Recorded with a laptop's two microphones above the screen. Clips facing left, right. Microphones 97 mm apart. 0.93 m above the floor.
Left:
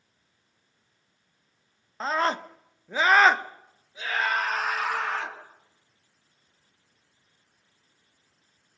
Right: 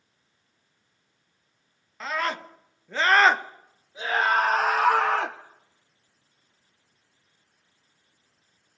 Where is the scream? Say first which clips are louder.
Left 3 dB; 35° left (ahead or behind), 1.2 m; by 5.4 s 55° right (ahead or behind), 1.3 m.